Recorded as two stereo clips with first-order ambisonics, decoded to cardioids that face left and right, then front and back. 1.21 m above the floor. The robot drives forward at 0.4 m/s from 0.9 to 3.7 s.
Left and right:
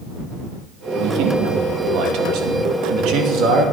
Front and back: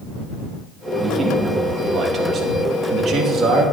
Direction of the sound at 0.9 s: 95° right.